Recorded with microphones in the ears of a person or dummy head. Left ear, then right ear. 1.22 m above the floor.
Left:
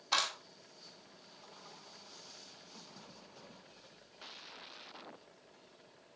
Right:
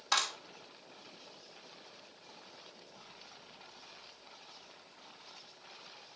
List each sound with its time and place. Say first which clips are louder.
0.1 s a clap: right 1 dB; 55° right (ahead or behind), 2.5 m